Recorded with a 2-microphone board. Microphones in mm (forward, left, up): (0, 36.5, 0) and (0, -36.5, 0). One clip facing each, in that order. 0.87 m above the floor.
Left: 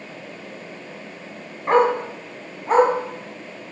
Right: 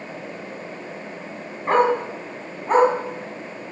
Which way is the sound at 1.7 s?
5° left (ahead or behind).